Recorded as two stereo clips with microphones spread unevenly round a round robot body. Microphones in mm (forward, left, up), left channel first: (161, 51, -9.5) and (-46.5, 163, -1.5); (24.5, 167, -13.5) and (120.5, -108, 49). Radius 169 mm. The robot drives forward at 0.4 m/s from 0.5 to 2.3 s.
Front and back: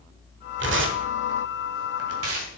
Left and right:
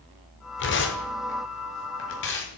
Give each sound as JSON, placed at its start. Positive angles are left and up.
{"t": 0.6, "sound": "tearing paper", "azimuth_deg": 130, "distance_m": 1.5}